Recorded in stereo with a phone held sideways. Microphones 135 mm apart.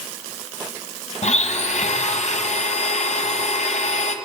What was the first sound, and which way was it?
A blender, 60° left (ahead or behind).